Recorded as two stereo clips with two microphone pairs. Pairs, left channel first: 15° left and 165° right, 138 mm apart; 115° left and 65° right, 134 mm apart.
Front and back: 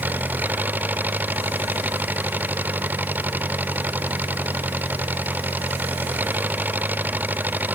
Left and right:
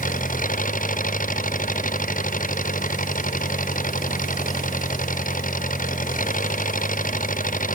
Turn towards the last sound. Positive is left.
turn(degrees=115)